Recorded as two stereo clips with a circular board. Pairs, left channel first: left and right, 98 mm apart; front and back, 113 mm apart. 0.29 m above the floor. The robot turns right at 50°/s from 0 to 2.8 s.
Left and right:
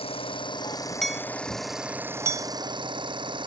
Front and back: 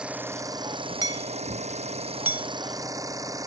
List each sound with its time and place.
0.0 s an engine running: 100° left; by 3.5 s 120° right
1.0 s hammering: 175° left; by 2.5 s 110° right